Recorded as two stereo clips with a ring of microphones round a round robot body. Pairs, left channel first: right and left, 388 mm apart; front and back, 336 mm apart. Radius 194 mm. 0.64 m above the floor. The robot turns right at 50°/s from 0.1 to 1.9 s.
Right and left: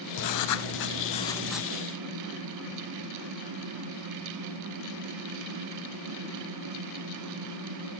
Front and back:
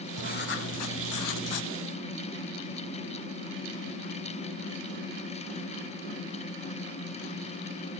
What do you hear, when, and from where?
0.2 s writing: 70° right, 0.7 m; by 1.7 s 10° left, 0.7 m